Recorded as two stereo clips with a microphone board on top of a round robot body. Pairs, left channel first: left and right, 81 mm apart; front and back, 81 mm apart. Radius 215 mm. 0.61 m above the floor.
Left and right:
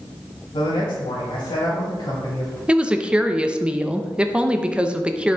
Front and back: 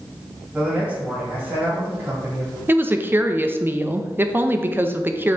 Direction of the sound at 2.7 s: 155° right.